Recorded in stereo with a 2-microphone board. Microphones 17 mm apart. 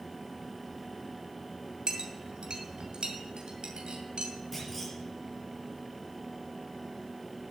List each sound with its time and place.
1.9 s a clink: 70° right (ahead or behind), 2.5 m
4.5 s a clunk: 10° left (ahead or behind), 5 m